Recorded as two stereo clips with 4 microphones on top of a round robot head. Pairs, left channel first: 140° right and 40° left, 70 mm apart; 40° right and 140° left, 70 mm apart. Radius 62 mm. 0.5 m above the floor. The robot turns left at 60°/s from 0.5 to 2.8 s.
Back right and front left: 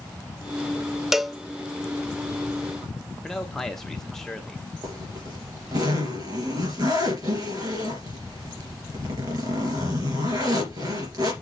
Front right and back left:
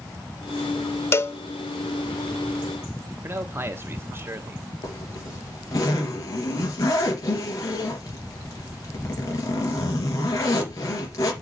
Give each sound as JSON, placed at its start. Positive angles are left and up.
{"t": 1.1, "sound": "a cowbell", "azimuth_deg": -40, "distance_m": 0.8}
{"t": 3.2, "sound": "a man speaking", "azimuth_deg": 140, "distance_m": 1.1}
{"t": 4.8, "sound": "a zipper", "azimuth_deg": 5, "distance_m": 3.0}